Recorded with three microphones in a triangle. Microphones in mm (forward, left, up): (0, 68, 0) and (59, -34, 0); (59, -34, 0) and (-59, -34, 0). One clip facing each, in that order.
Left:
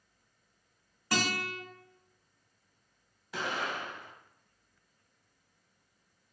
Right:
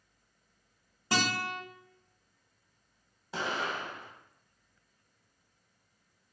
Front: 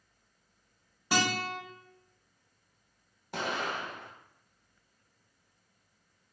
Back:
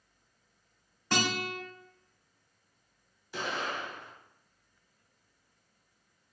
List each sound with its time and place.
1.1 s a guitar: 65° right, 1.5 m
3.3 s an explosion: 5° right, 0.9 m